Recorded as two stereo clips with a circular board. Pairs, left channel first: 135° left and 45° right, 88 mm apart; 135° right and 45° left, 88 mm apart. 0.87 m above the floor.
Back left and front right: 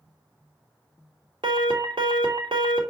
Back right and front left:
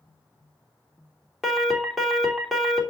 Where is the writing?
No writing in this recording.